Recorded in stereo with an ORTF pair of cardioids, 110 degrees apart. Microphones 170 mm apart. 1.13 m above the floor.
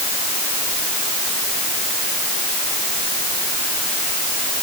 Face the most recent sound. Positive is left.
No sound to turn to.